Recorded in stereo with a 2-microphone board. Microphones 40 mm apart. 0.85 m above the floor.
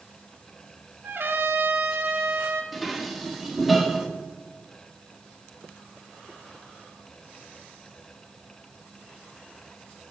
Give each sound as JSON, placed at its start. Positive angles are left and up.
{"t": 1.0, "sound": "a trumpet", "side_deg": -65, "distance_m": 1.0}
{"t": 2.7, "sound": "dishes clattering", "side_deg": 0, "distance_m": 1.0}